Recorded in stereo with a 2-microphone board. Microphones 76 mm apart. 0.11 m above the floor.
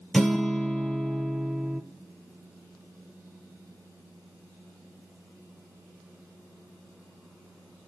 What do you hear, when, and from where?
0.1 s a guitar: centre (ahead or behind), 1.0 m